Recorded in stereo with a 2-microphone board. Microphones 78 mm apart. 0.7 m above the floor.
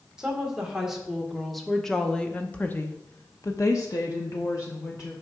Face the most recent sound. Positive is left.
turn(degrees=45)  # may be behind; listen again after turning